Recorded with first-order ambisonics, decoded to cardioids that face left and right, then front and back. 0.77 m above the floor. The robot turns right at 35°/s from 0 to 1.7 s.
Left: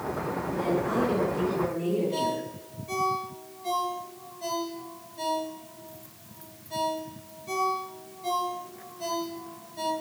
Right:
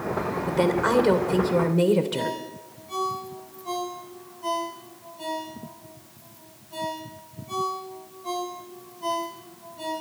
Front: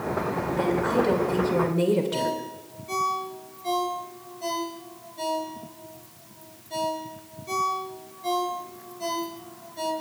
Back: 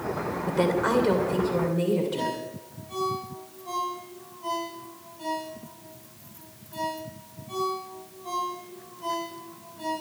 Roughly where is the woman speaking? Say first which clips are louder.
Right 7 dB, back 4 dB; behind right.